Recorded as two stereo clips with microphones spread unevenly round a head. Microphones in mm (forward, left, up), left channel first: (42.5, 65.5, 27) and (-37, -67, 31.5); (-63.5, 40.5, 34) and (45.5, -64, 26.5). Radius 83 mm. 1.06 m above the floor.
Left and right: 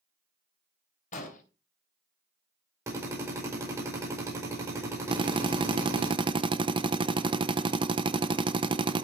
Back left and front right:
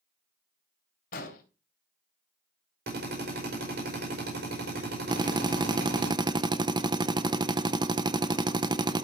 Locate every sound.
1.1 s an explosion: 100° left, 3 m
2.9 s a drill: 50° right, 5 m
5.1 s a drill: 80° right, 0.9 m